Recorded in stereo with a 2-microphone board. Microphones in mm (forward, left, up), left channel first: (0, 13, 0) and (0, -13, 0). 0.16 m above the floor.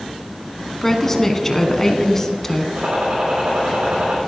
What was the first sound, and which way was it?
A woman speaking, 15° left (ahead or behind).